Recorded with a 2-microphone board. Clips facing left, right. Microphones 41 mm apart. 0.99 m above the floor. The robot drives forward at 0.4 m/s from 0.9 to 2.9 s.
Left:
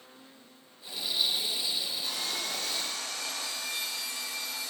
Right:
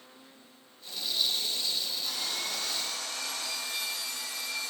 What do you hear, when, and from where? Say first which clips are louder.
2.0 s sawing: even; 20° left (ahead or behind), 1.6 m